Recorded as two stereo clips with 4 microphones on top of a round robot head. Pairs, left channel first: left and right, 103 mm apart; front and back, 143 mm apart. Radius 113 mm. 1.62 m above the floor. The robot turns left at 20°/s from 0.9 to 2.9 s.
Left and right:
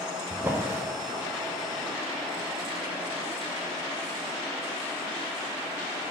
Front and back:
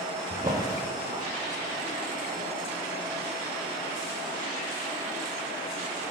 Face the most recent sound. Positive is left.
turn(degrees=-170)